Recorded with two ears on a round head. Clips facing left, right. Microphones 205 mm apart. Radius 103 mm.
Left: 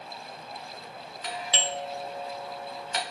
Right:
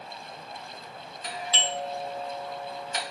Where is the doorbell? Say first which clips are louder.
Even; 55° left (ahead or behind), 1.6 m.